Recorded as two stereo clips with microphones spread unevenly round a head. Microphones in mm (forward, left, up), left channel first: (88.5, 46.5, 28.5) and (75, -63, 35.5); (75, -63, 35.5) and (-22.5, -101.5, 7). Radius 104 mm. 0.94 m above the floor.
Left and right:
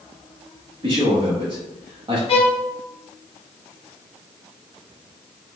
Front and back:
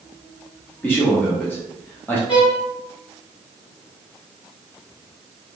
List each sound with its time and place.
0.8 s a man speaking: 55° right, 1.0 m
2.3 s a violin: 55° left, 0.6 m